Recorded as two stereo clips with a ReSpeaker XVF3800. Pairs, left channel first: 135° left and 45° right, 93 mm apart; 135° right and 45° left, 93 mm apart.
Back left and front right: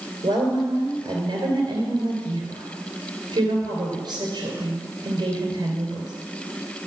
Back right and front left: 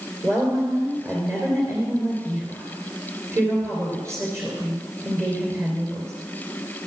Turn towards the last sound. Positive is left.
turn(degrees=-10)